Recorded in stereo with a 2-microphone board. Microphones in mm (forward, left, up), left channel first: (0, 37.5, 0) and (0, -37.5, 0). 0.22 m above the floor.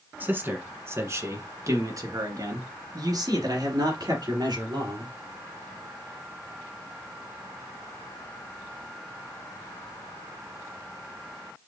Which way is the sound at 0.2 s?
25° right (ahead or behind).